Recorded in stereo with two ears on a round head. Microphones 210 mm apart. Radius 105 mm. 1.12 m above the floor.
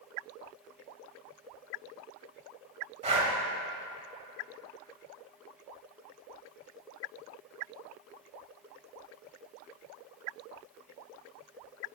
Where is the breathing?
25° right (ahead or behind), 1.0 m.